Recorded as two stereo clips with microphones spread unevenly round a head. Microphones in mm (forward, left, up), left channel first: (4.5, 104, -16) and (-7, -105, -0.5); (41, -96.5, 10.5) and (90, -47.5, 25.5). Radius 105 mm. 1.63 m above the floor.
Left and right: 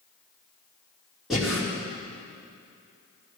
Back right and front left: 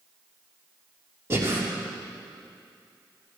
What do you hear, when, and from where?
1.3 s breathing: 5° right, 3.5 m